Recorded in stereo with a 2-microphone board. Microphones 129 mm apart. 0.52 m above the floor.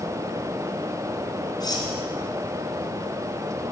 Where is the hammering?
No hammering in this recording.